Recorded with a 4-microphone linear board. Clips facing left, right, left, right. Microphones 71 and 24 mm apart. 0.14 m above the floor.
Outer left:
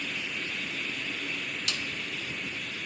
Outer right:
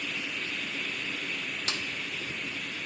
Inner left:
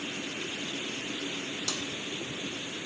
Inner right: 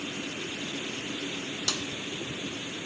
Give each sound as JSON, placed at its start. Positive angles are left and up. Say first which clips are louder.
{"t": 1.7, "sound": "a snare drum", "louder": "outer right 2 dB, inner right 4 dB", "side_deg": -30, "distance_m": 0.6}